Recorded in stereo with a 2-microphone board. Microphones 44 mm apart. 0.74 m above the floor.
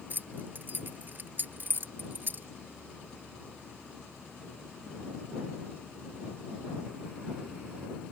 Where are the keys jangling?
45° right (ahead or behind).